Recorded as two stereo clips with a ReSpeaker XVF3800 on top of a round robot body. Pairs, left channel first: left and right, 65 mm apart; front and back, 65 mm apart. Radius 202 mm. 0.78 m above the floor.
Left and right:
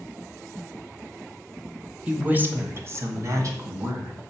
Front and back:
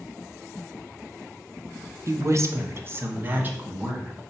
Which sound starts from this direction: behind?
A woman speaking, at 2.1 s.